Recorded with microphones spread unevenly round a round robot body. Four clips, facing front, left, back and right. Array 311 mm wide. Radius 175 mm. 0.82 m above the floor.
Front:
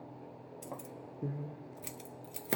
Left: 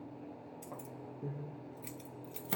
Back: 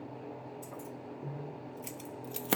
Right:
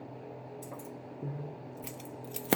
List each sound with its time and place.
0.6 s keys jangling: 15° right, 1.0 m; by 2.6 s 105° right, 0.5 m